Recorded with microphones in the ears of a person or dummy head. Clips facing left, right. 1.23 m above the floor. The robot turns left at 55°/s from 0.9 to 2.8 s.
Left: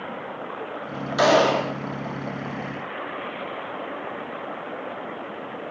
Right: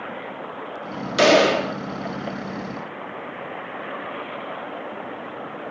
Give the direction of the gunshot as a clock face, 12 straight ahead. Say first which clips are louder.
Right 2 dB; 4 o'clock.